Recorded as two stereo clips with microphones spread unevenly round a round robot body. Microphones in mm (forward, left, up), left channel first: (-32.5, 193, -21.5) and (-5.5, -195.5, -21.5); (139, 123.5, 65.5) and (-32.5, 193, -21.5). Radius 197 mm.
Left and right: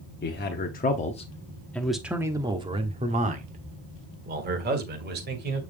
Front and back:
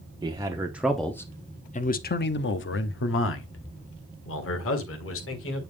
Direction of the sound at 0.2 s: 150° left.